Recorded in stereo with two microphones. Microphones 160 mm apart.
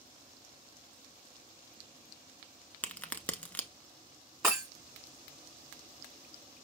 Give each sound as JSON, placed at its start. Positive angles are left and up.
{"t": 2.8, "sound": "a crack", "side_deg": 10, "distance_m": 0.6}
{"t": 4.4, "sound": "breaking glass", "side_deg": -15, "distance_m": 1.8}